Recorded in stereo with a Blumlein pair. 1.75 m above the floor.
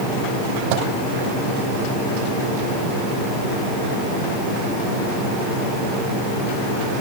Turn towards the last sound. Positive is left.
turn(degrees=-45)